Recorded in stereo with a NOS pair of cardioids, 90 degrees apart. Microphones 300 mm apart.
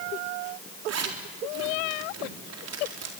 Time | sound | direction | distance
0.9 | a zipper | 55° right | 4 m